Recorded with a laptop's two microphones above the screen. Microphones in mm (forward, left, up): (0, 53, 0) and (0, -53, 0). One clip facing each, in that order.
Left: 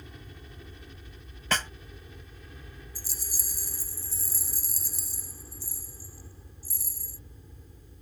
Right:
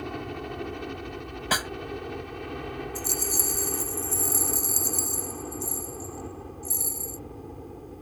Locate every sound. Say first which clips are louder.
0.0 s a helicopter: right 16 dB; 65° right (ahead or behind)
1.5 s a snare drum: right 2 dB; 10° right (ahead or behind)
3.0 s a rattle: right 16 dB; 60° right (ahead or behind)